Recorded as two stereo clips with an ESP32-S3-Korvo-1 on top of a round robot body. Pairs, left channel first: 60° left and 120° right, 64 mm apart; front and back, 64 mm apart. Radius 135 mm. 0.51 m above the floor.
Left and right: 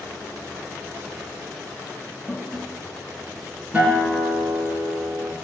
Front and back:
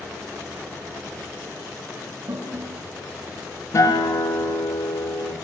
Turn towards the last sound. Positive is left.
turn(degrees=-45)